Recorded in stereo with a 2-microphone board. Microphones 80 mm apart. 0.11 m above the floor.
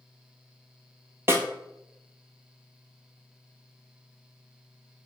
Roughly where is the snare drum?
Right.